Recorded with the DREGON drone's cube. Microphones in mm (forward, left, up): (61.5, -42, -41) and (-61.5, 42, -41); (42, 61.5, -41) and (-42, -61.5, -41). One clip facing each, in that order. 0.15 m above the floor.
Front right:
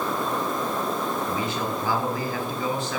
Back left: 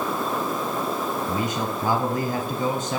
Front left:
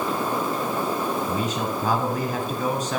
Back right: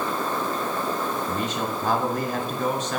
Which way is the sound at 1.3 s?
155° left.